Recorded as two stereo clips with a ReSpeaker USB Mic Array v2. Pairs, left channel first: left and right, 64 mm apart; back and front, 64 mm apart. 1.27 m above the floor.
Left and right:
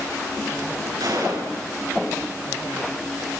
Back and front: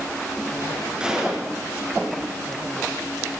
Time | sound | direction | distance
1.0 | a gunshot | 75° right | 9.5 m